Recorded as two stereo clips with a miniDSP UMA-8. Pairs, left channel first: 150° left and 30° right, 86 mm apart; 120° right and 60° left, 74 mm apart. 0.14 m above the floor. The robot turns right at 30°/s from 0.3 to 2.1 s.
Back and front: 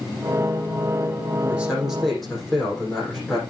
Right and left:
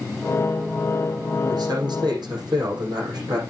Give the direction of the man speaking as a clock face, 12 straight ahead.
11 o'clock.